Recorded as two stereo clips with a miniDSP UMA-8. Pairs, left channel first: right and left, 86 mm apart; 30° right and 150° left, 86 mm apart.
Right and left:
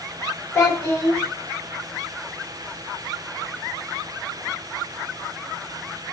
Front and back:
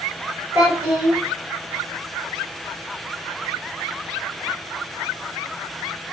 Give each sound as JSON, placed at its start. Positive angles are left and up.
{"t": 0.6, "sound": "a child speaking", "azimuth_deg": -150, "distance_m": 1.2}